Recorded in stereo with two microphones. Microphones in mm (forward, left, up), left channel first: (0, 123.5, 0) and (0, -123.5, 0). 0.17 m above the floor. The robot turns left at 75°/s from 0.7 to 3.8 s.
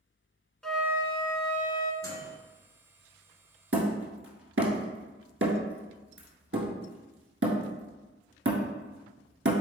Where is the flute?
Straight ahead, 0.5 m; by 1.9 s 90° right, 0.5 m.